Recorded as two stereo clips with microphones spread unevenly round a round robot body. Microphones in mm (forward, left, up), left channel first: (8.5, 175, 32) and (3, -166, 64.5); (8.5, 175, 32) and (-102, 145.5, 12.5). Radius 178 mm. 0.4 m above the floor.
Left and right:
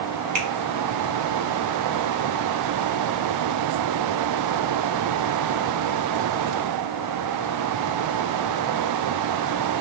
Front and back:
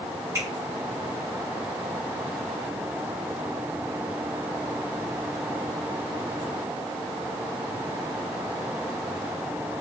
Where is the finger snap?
115° right, 1.0 m.